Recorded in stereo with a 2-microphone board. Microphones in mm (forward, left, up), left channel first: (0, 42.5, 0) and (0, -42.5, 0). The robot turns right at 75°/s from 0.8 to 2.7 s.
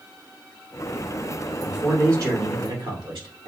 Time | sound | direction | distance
1.6 | a man speaking | 175° right | 2.5 m